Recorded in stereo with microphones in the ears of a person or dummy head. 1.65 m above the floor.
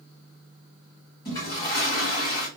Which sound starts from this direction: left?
A toilet flushing, at 1.2 s.